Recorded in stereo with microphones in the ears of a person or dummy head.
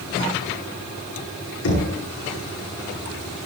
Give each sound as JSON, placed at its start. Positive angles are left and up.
{"t": 1.6, "sound": "knocking", "side_deg": 80, "distance_m": 9.5}